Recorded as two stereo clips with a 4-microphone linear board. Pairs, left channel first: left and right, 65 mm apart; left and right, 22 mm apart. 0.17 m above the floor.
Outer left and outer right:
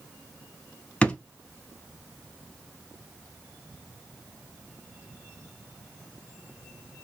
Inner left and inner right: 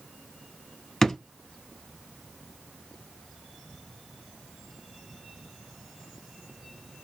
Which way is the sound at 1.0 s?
15° left (ahead or behind).